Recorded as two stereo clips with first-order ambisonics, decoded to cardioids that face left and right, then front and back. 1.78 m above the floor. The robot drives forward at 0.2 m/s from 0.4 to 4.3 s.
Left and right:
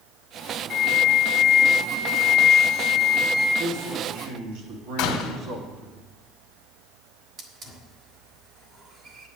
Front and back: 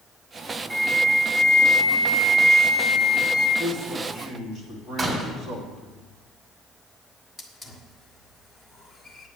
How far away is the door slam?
About 1.9 m.